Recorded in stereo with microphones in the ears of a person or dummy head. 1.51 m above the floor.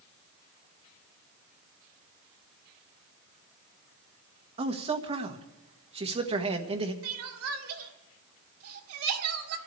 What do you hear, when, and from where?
4.6 s a man speaking: 35° right (ahead or behind), 1.5 m
7.0 s crying: 75° right (ahead or behind), 1.6 m